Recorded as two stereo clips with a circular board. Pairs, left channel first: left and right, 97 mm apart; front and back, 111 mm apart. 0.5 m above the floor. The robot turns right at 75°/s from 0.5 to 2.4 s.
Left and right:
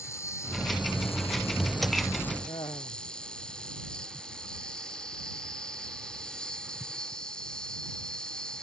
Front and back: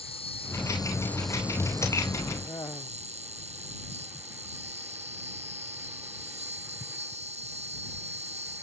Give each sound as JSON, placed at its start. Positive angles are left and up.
{"t": 0.0, "sound": "an insect", "azimuth_deg": 30}
{"t": 2.5, "sound": "laughter", "azimuth_deg": 55}